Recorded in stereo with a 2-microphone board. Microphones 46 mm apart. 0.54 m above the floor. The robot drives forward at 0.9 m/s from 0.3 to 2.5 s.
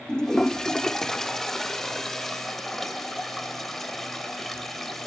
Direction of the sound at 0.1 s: 15° left (ahead or behind).